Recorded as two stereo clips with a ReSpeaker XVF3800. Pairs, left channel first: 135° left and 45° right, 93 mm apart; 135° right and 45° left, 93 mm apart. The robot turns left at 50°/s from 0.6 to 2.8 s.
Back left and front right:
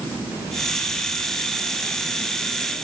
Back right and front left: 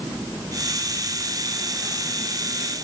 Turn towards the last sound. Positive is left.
No sound to turn to.